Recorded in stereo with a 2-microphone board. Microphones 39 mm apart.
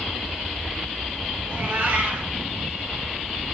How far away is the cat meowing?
About 1.3 m.